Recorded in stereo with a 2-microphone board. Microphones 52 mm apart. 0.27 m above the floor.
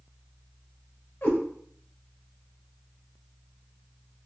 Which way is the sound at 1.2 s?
40° left (ahead or behind).